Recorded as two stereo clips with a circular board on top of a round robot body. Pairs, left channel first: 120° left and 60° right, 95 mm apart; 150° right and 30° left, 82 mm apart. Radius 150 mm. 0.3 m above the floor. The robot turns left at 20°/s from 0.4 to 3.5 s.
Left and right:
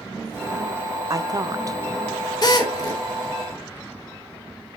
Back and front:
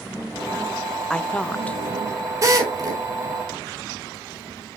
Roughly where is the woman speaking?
Right.